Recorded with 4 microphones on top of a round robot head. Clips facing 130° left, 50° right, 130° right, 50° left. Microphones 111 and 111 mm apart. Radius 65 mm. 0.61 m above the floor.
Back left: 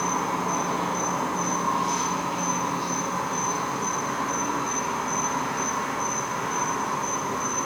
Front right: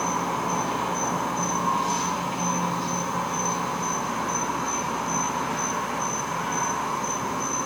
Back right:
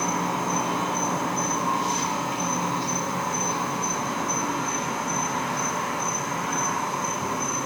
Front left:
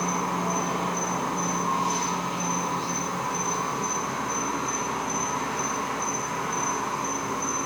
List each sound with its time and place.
0.0 s an insect: 120° right, 2.5 m